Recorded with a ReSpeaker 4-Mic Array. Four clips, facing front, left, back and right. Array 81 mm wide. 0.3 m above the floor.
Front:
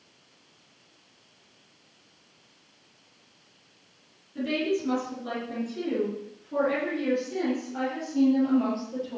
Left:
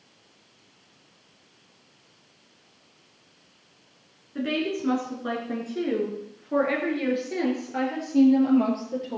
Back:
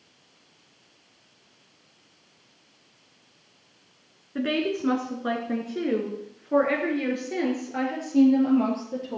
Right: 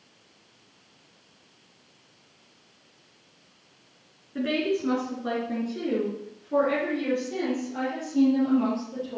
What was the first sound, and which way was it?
A woman speaking, straight behind.